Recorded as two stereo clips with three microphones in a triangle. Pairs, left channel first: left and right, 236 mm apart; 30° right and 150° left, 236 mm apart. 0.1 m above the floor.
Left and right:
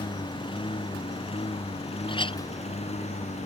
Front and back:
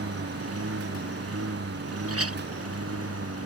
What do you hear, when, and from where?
0.0 s a lawn mower: 160° left; by 3.5 s 150° left
2.1 s a clink: 160° left